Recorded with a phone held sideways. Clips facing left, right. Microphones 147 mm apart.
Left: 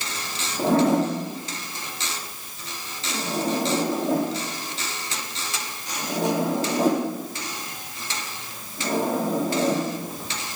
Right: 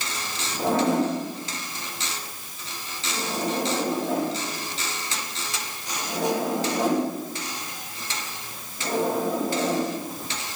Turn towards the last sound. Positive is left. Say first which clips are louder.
# left 3 dB
turn(degrees=40)  # may be behind; listen again after turning